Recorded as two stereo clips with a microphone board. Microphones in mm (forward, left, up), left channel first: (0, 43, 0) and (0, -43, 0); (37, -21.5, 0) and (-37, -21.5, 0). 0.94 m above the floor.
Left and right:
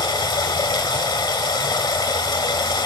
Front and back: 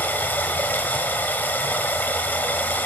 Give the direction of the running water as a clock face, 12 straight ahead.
10 o'clock.